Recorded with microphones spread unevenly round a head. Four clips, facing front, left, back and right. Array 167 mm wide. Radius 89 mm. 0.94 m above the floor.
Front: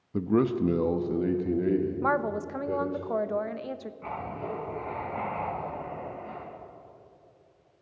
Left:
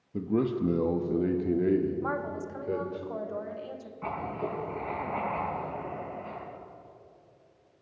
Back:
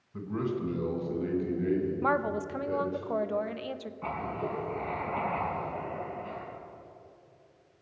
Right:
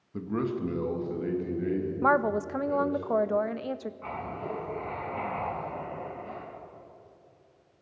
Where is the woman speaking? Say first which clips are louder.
Right 8 dB, front 1 dB; 90° right, 0.6 m.